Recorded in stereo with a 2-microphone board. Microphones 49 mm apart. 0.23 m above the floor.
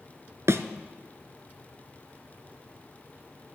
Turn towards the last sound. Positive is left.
turn(degrees=-65)  # may be behind; listen again after turning